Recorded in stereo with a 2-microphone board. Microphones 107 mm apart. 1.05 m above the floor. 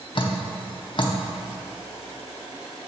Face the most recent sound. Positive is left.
turn(degrees=50)  # may be behind; listen again after turning